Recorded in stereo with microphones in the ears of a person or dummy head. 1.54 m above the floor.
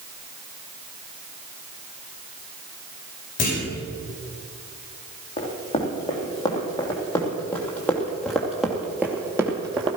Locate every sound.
3.4 s a clunk: 35° left (ahead or behind), 5.5 m
5.4 s running footsteps: 25° left (ahead or behind), 4 m; by 10.0 s 25° right (ahead or behind), 2 m